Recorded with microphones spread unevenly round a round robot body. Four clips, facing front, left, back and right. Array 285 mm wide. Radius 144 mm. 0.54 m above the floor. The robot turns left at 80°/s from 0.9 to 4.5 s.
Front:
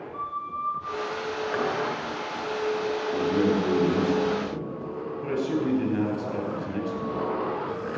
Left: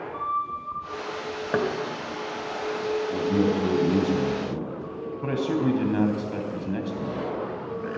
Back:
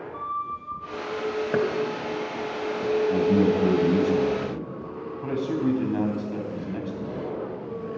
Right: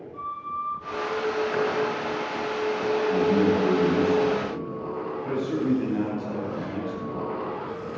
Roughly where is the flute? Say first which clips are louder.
Left 3 dB, back 1 dB; behind left.